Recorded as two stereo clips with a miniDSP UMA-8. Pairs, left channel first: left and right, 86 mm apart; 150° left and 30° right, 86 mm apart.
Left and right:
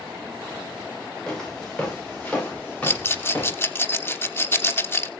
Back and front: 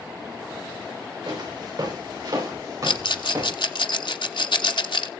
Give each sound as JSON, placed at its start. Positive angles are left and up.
{"t": 1.3, "sound": "footsteps", "azimuth_deg": 10, "distance_m": 9.0}
{"t": 2.8, "sound": "a rattle", "azimuth_deg": 150, "distance_m": 1.1}